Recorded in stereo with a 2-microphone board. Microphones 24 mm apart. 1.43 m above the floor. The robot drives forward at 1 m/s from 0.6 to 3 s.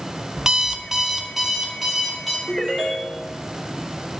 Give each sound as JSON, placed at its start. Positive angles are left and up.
{"t": 0.4, "sound": "an alarm clock", "side_deg": -25, "distance_m": 0.5}
{"t": 2.5, "sound": "a ringtone", "side_deg": -20, "distance_m": 3.5}